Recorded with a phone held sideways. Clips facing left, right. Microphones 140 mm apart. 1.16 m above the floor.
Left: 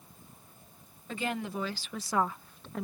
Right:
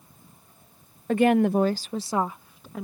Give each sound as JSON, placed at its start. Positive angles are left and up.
{"t": 1.1, "sound": "a woman speaking", "side_deg": -60}